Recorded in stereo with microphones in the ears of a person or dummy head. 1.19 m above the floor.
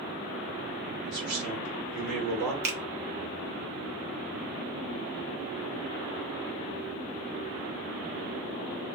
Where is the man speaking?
45° right (ahead or behind), 0.8 m; by 2.5 s 55° right (ahead or behind), 1.4 m.